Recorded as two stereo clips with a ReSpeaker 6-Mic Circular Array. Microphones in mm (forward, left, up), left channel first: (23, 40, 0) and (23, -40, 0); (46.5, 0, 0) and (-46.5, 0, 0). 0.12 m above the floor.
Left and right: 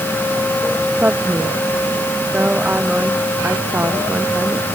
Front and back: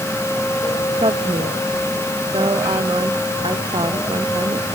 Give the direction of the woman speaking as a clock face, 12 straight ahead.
5 o'clock.